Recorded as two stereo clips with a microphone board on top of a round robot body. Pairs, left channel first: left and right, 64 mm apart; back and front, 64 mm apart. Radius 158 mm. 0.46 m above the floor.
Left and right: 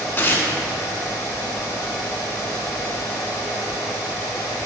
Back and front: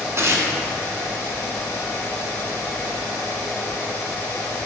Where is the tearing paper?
35° left, 1.5 m.